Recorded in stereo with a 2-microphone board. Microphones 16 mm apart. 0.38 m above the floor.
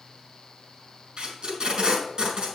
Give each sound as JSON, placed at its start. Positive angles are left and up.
{"t": 1.2, "sound": "tape being pulled", "side_deg": -55, "distance_m": 4.5}